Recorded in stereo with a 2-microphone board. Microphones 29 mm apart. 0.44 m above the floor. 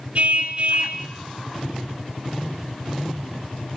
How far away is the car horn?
About 3 m.